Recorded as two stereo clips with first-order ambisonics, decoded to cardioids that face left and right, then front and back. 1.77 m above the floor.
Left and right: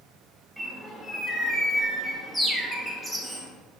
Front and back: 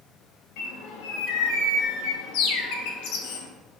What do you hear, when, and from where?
0.6 s a bird: 5° left, 0.5 m